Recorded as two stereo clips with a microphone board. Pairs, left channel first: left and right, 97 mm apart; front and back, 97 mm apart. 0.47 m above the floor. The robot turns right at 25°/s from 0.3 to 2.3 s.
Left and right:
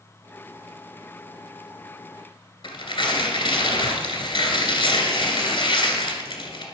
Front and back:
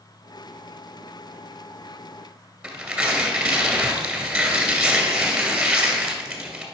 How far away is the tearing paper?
About 2 m.